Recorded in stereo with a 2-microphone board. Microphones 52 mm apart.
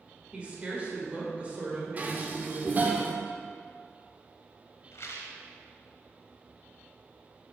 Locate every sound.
0.3 s a woman speaking: 25° right (ahead or behind), 1.5 m
2.0 s dishes clattering: 35° right (ahead or behind), 0.6 m
4.9 s a rattle: 65° left (ahead or behind), 0.7 m